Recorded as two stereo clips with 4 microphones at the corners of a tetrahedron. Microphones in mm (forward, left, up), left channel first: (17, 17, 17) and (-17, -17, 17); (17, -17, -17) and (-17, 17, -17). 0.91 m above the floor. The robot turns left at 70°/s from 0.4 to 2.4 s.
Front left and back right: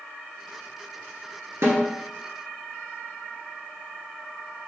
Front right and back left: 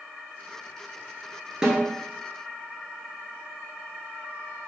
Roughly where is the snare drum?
Behind right.